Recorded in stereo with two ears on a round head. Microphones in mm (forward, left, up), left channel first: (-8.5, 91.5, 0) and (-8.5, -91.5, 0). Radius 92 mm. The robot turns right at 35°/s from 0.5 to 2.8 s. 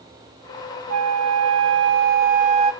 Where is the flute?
95° right, 0.6 m; by 2.7 s 30° right, 0.6 m.